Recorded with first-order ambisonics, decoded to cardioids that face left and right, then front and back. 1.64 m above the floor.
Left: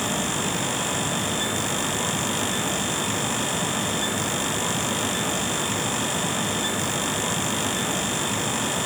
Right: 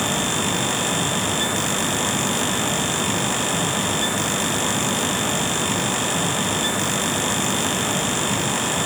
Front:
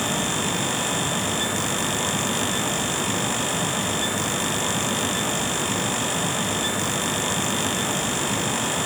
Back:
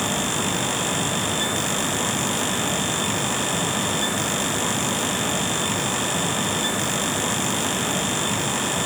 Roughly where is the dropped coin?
No dropped coin in this recording.